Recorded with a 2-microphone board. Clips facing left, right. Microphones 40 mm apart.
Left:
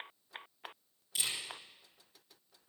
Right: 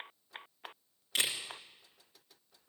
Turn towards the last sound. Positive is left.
turn(degrees=-50)  # may be behind; listen again after turning